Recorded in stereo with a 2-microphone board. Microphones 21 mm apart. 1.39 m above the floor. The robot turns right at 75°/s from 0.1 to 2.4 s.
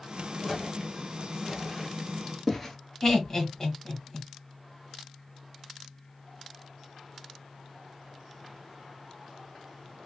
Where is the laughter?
25° left (ahead or behind), 1.7 m.